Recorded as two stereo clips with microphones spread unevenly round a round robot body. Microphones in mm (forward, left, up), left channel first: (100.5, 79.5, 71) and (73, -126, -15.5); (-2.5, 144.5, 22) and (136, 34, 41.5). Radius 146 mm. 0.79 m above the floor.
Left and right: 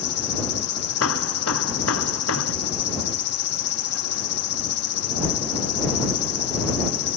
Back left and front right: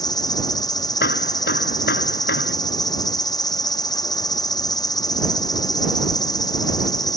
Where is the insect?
80° left.